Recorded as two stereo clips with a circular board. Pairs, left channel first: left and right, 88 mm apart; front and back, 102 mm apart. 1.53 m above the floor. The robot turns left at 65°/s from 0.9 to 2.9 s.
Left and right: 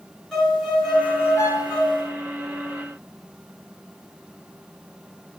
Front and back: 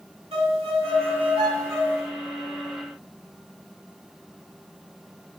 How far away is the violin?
About 5 m.